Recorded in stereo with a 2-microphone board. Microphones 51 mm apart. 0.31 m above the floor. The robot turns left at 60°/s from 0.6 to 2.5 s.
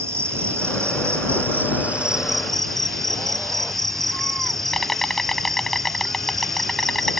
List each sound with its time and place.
0.0 s an insect: 70° right; by 7.2 s 175° left